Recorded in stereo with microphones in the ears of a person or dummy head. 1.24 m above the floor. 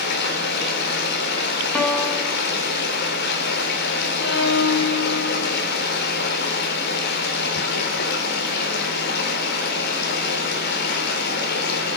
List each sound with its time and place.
0.0 s running water: 65° left (ahead or behind), 4 m
1.7 s a piano: 5° left (ahead or behind), 3.5 m
4.2 s a violin: 75° left (ahead or behind), 4 m